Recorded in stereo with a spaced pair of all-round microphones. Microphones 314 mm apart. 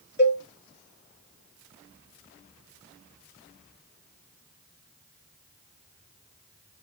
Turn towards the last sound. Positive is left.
turn(degrees=35)  # may be behind; listen again after turning